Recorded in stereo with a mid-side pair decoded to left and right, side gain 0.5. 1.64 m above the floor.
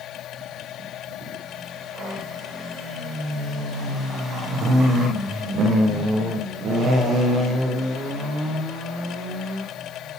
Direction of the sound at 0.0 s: 65° left.